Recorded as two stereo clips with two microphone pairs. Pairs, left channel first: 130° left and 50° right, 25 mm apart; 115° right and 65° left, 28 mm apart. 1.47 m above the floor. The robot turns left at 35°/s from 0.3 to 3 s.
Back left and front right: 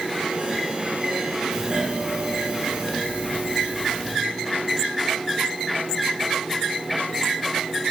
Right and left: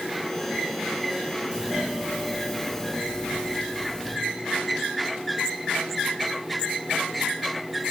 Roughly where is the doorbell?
Ahead.